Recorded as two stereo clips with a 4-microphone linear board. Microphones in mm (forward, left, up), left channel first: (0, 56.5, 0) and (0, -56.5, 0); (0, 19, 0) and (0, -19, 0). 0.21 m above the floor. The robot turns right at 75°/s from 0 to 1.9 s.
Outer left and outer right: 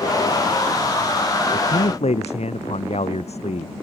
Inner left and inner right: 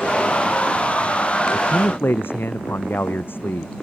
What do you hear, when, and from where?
1.5 s a man speaking: 80° left; by 3.7 s 70° left (ahead or behind)